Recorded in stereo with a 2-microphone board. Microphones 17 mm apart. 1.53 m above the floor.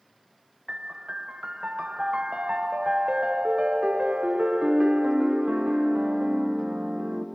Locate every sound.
0.7 s a piano: 85° right, 1.0 m